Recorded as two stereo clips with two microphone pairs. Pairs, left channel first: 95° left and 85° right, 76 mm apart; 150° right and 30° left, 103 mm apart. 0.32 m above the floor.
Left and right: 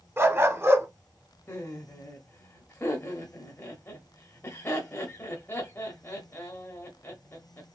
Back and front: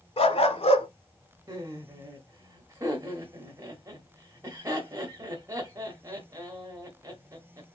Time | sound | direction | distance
0.2 | a dog barking | 140° right | 0.7 m
1.5 | laughter | 55° left | 1.1 m